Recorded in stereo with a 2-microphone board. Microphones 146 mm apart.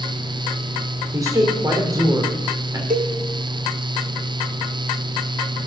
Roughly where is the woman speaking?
Right.